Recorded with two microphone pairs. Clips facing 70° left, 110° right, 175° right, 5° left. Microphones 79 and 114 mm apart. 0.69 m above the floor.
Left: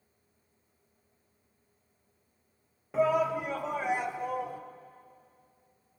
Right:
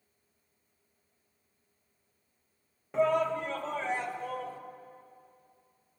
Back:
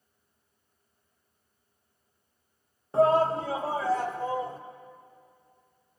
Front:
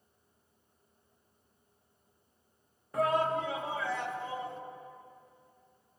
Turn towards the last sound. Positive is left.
turn(degrees=140)